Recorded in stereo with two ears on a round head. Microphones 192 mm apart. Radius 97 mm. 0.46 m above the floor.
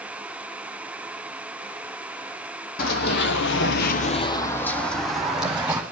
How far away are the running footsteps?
About 1.2 m.